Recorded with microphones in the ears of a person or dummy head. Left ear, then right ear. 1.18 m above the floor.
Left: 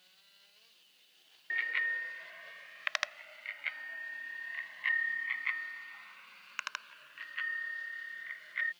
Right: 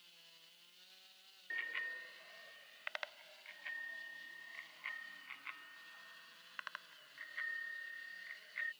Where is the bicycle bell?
25° left (ahead or behind); by 8.7 s 80° left.